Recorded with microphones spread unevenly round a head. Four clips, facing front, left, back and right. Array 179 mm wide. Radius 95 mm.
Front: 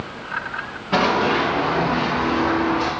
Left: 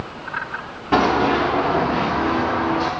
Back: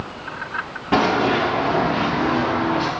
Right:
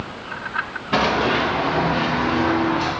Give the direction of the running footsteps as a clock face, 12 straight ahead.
7 o'clock.